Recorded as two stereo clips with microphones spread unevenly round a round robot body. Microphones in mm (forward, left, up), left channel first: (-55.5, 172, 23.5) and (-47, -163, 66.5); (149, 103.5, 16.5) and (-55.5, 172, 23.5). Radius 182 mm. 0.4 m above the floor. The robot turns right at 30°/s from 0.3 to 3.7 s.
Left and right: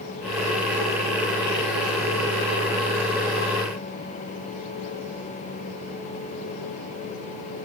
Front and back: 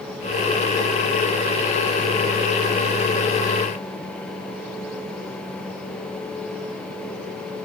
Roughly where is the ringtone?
No ringtone in this recording.